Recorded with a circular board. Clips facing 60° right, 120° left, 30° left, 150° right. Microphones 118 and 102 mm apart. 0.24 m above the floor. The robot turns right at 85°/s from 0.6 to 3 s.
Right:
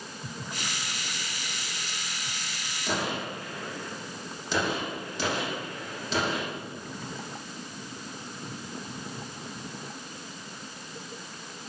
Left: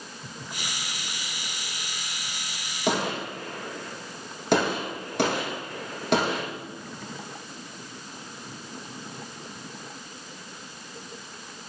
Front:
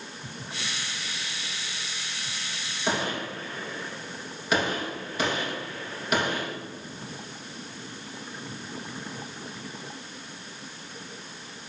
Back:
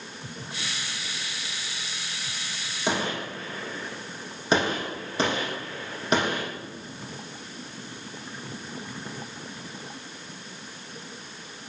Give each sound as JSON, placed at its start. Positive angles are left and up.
{"t": 2.9, "sound": "a gunshot", "azimuth_deg": 140, "distance_m": 6.0}